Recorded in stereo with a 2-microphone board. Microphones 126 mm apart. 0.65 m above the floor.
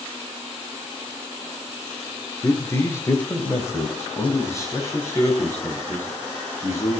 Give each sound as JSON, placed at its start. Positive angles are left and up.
{"t": 2.4, "sound": "a man speaking", "side_deg": 25, "distance_m": 1.7}